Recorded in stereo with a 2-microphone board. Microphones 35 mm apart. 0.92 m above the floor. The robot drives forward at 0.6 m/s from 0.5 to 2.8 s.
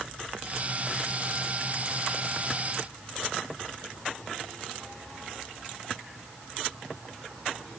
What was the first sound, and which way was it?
Only background noise.